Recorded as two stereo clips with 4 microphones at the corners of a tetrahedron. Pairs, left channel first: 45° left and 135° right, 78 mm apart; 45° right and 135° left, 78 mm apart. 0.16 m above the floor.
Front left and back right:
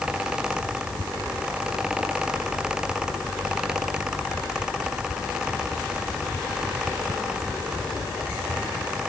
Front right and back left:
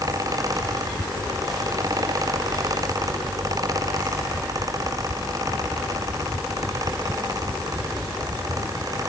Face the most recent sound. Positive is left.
No sound to turn to.